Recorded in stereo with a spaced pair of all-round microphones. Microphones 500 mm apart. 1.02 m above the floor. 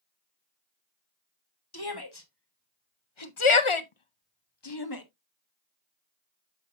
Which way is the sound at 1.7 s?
45° left (ahead or behind).